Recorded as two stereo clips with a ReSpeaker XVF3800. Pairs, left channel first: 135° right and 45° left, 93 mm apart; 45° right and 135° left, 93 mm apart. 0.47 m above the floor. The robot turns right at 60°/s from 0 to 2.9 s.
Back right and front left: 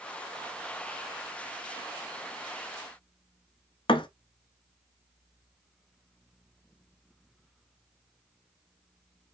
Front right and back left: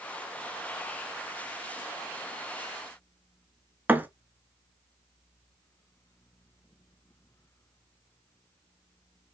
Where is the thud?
155° right, 0.7 m.